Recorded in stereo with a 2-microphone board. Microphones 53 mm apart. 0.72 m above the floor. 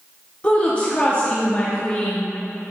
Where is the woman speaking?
25° left (ahead or behind), 0.9 m.